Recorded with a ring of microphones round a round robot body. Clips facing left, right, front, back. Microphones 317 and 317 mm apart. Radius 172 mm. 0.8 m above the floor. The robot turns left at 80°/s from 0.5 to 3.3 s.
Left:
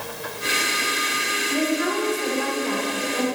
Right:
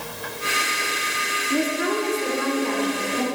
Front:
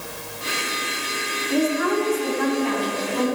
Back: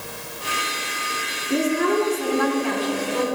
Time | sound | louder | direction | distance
1.5 | a woman speaking | even, back 1 dB | 100° right | 2.5 m